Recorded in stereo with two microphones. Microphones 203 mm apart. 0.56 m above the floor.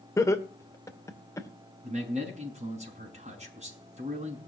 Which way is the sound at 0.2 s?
15° left (ahead or behind).